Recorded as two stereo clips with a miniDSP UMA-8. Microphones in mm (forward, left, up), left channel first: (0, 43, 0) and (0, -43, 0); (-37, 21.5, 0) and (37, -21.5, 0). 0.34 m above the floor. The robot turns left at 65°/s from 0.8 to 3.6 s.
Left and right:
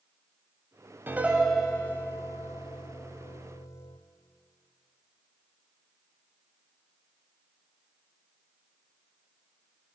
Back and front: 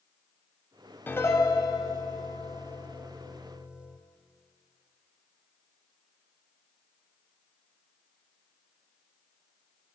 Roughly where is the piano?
Behind right.